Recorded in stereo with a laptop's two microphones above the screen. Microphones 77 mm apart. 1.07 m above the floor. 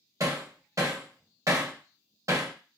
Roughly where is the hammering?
Right.